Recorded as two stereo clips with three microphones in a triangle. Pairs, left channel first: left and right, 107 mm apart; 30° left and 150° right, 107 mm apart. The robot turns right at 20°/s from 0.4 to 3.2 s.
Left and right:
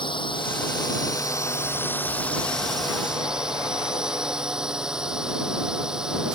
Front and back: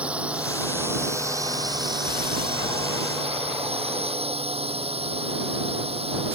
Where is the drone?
130° left; by 6.4 s 175° right.